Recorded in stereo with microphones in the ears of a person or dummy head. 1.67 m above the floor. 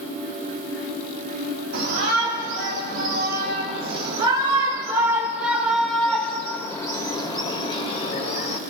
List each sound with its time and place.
1.7 s a shout: 55° right (ahead or behind), 3.5 m; by 8.6 s 40° left (ahead or behind), 3 m